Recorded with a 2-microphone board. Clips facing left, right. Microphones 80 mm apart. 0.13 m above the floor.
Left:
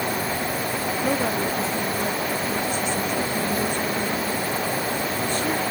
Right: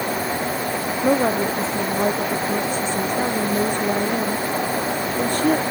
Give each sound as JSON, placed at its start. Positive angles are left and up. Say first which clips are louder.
{"t": 1.0, "sound": "a woman speaking", "louder": "right 7 dB", "side_deg": -30}